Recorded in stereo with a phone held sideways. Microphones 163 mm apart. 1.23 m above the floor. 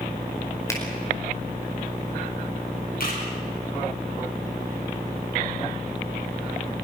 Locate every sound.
0.7 s a finger snap: 15° left (ahead or behind), 4.5 m
3.0 s a camera shutter: 65° left (ahead or behind), 6.5 m